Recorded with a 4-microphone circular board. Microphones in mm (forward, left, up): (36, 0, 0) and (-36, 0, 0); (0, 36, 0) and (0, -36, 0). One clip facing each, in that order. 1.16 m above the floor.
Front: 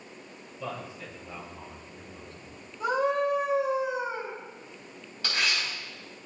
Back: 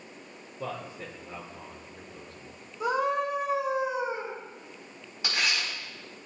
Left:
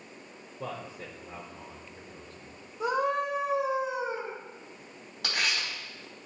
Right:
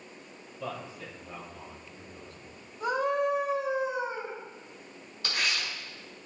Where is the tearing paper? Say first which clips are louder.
Even, left 1 dB; 105° left, 4.5 m.